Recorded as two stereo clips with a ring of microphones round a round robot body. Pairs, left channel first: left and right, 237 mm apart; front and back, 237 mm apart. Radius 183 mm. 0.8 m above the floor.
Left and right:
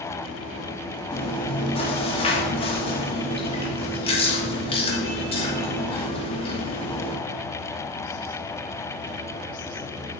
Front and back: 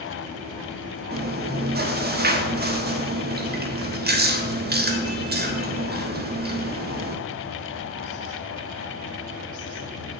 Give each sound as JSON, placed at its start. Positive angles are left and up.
{"t": 1.1, "sound": "chewing", "azimuth_deg": 150, "distance_m": 1.4}